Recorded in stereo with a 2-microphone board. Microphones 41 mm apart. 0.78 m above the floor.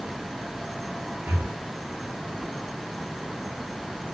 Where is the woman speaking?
I don't hear a woman speaking.